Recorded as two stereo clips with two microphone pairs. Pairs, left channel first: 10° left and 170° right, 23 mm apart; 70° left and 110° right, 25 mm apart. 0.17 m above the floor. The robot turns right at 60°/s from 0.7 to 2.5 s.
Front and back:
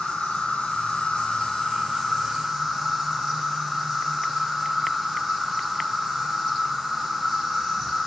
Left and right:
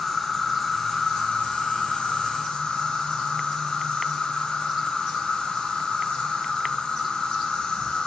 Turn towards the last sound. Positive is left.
turn(degrees=105)